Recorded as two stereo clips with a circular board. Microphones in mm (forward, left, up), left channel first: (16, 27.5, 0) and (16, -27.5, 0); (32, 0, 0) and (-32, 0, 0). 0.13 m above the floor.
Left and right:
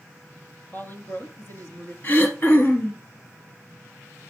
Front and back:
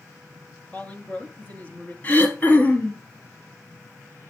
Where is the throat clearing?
50° left, 1.7 m.